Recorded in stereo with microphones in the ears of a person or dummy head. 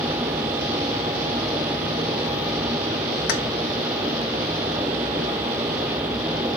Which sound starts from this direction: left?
Keys jangling, at 3.3 s.